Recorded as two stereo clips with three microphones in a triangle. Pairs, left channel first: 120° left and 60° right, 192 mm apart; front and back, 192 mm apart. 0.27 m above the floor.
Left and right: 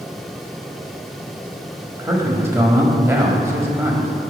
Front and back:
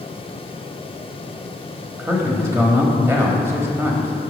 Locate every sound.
2.0 s a man speaking: 120° right, 1.2 m